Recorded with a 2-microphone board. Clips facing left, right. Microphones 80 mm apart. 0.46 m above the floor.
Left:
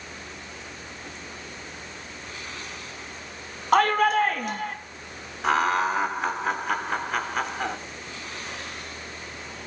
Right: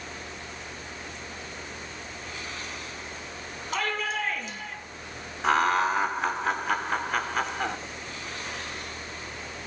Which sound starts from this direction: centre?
Laughter, at 5.4 s.